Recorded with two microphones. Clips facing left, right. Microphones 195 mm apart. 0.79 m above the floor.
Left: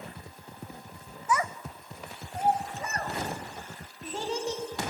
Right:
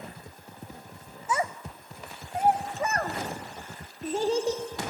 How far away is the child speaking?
About 0.8 m.